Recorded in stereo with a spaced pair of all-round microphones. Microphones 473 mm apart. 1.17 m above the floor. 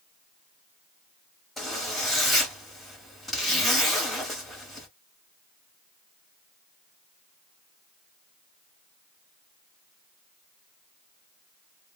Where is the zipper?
Centre (ahead or behind), 1.4 m.